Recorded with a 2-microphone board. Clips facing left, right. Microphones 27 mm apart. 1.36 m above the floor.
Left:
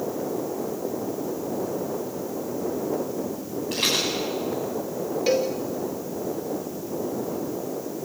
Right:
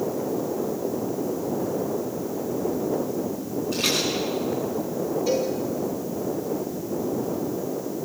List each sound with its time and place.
3.7 s a rattle: 85° left, 9 m
5.3 s a cowbell: 70° left (ahead or behind), 1.9 m